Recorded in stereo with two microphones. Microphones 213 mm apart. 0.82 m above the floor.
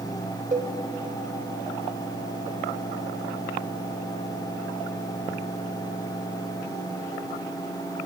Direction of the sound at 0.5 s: 35° right (ahead or behind).